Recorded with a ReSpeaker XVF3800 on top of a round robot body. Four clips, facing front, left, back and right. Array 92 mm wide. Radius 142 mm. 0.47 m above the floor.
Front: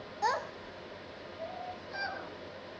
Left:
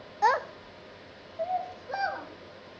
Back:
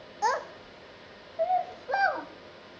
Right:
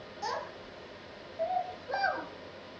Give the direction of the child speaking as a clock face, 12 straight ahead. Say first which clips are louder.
Left 12 dB, back 4 dB; 9 o'clock.